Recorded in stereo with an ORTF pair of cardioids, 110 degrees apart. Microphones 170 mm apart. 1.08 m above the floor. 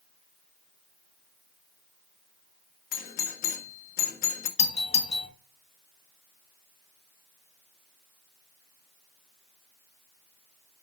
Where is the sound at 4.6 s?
40° left, 2 m.